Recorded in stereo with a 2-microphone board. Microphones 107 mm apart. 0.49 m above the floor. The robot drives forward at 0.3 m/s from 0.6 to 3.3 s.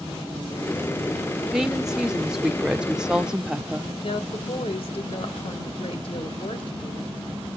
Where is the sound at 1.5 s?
5° right (ahead or behind), 1.1 m; by 3.9 s 10° right (ahead or behind), 0.7 m.